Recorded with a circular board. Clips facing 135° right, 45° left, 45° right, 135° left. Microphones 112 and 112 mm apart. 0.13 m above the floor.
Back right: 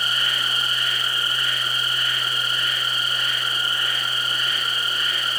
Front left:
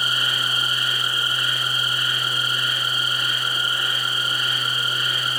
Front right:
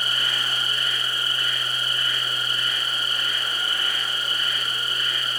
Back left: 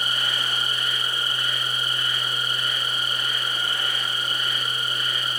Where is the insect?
105° left, 2 m.